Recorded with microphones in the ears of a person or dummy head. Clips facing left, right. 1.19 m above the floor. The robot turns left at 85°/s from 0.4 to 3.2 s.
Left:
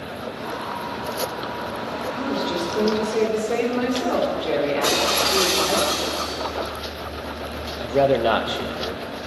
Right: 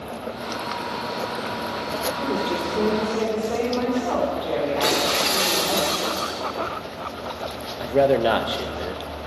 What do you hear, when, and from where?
2.1 s a woman speaking: 125° right, 4 m; by 5.8 s 145° left, 4 m
4.8 s breaking glass: 30° right (ahead or behind), 4.5 m
7.8 s a man speaking: centre (ahead or behind), 0.9 m